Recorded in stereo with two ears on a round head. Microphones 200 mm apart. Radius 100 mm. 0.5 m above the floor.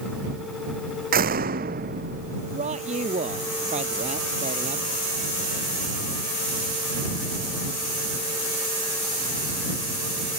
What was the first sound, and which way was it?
A door slam, 45° right (ahead or behind).